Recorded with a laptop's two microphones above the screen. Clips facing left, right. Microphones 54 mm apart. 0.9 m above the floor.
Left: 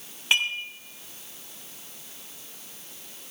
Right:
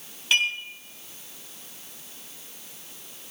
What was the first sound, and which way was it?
Dishes clattering, 25° left (ahead or behind).